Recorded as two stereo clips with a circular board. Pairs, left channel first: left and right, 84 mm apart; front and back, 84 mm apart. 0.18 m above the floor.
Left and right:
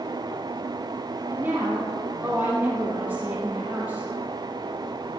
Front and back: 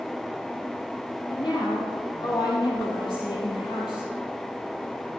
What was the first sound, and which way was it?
A woman speaking, 25° right.